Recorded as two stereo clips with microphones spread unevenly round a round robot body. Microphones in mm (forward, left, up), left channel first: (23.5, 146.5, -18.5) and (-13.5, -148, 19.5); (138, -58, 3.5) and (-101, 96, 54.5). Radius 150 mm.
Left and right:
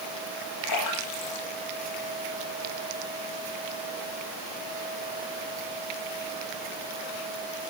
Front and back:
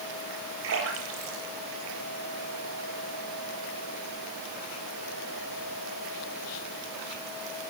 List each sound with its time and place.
0.6 s a splash: 105° left, 9 m